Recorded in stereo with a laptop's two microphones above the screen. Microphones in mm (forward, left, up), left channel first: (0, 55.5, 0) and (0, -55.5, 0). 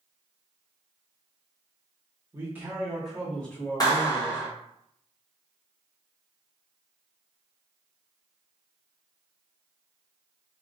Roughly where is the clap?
Left.